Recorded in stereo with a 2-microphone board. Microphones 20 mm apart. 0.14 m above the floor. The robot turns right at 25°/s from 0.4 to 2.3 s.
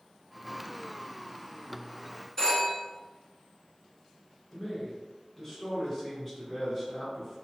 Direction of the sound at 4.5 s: 5° left (ahead or behind).